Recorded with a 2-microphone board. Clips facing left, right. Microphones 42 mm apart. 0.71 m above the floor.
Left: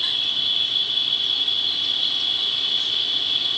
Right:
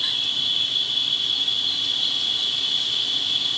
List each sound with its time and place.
0.0 s an insect: 10° left (ahead or behind), 1.0 m